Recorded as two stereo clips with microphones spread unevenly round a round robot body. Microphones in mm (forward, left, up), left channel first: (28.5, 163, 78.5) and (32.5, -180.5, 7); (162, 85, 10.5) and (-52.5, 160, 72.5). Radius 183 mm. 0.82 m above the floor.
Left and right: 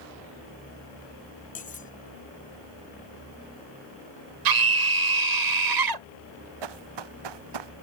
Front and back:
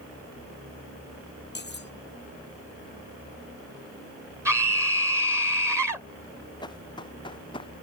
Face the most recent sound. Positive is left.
turn(degrees=-95)